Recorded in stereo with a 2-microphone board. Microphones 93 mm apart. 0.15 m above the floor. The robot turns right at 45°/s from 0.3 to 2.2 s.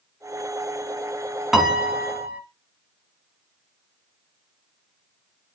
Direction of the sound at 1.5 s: Centre (ahead or behind).